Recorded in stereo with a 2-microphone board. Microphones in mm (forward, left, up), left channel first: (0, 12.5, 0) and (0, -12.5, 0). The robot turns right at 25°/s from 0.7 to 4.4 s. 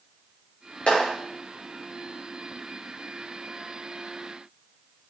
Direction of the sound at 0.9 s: 50° left (ahead or behind).